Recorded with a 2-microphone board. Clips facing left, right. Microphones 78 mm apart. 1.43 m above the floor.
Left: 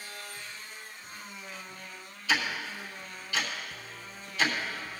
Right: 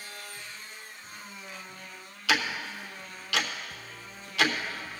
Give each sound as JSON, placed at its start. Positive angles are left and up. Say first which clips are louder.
{"t": 2.3, "sound": "ticking", "louder": "right 2 dB", "side_deg": -75, "distance_m": 0.9}